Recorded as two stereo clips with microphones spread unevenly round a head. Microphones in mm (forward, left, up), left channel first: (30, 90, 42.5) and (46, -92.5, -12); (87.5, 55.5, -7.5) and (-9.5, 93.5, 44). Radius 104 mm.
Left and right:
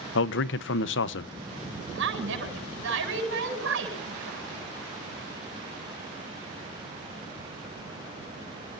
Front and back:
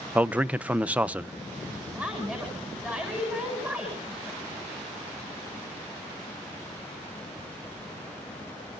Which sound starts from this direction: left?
A man speaking, at 0.1 s.